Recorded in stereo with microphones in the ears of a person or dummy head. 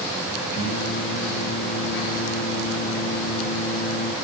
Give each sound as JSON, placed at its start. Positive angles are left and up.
{"t": 0.5, "sound": "singing", "side_deg": 35, "distance_m": 5.0}